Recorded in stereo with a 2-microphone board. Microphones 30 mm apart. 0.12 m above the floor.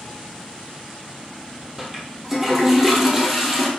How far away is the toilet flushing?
About 1.1 m.